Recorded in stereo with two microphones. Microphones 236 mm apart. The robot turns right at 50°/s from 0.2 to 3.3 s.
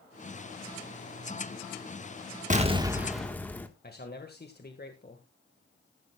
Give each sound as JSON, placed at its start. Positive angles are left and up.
{"t": 2.5, "sound": "an explosion", "azimuth_deg": -35, "distance_m": 1.5}
{"t": 3.8, "sound": "a man speaking", "side_deg": 40, "distance_m": 1.7}